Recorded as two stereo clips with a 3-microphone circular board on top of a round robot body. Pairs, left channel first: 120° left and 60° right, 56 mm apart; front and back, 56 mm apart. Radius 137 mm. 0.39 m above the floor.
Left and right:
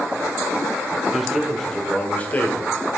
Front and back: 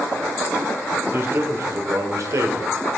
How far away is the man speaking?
About 1.9 m.